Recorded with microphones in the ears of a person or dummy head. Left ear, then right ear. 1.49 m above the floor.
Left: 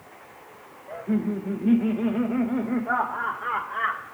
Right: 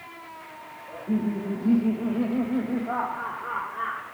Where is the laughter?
80° left, 2 m; by 4.0 s 55° left (ahead or behind), 2 m.